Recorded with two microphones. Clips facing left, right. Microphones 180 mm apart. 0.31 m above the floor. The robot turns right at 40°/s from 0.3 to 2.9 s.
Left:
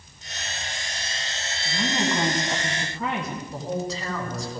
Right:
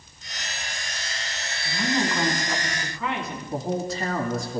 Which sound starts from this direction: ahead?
A woman speaking, at 1.6 s.